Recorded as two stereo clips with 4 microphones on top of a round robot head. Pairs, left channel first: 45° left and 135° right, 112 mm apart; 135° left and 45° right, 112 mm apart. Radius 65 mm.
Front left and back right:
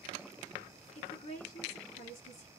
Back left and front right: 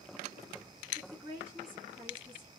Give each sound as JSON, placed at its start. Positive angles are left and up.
{"t": 0.9, "sound": "a woman speaking", "azimuth_deg": 40, "distance_m": 1.9}